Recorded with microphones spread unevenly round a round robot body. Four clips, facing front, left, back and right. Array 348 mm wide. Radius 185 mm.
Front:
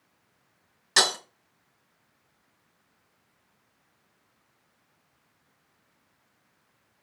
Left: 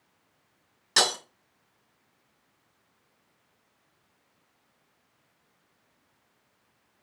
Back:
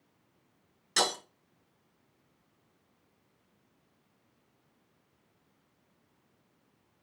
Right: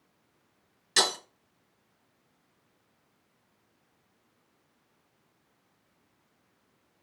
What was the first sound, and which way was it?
Breaking glass, 45° left.